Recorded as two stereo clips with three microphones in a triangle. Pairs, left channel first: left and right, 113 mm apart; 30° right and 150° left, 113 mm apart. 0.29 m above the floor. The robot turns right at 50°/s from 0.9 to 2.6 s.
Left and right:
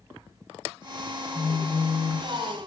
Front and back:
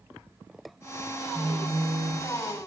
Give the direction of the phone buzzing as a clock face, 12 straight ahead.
12 o'clock.